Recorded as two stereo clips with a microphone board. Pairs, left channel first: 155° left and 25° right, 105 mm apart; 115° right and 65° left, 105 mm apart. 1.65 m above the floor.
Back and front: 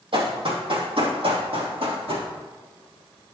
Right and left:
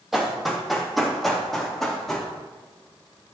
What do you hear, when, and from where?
0.1 s running footsteps: 20° right, 3 m; by 2.3 s 25° right, 4.5 m